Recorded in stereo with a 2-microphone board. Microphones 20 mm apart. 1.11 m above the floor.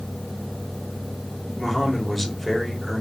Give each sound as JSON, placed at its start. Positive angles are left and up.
{"t": 1.6, "sound": "a man speaking", "side_deg": 10, "distance_m": 1.3}